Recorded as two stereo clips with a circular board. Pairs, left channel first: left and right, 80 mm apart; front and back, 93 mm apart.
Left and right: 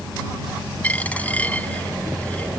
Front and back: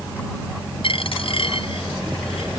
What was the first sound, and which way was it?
A dropped coin, 20° left.